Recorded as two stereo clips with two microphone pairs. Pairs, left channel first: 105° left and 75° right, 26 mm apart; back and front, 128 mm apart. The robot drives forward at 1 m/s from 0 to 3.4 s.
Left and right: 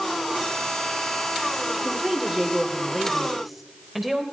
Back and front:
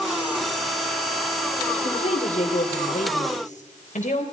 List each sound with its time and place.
1.7 s a woman speaking: 150° right, 3 m; by 4.2 s 160° right, 4.5 m